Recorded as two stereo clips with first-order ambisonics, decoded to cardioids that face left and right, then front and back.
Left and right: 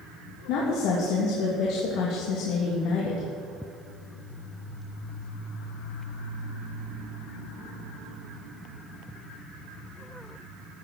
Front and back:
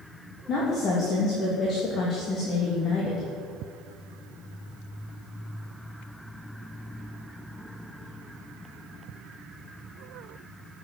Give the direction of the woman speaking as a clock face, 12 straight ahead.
10 o'clock.